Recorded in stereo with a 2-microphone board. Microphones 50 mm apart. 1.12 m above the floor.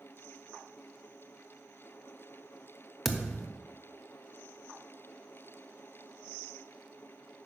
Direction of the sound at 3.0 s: Centre (ahead or behind).